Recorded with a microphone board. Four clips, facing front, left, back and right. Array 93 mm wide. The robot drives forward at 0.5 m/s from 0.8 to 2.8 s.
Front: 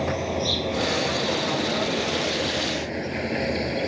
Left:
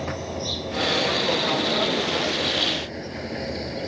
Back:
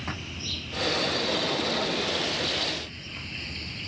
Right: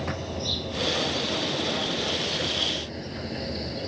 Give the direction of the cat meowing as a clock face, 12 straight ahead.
No cat meowing in this recording.